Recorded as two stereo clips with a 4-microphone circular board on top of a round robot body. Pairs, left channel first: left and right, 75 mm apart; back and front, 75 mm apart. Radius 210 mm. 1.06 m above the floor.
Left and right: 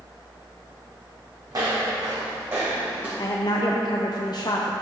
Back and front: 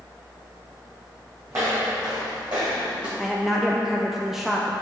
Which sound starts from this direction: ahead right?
Footsteps, at 1.5 s.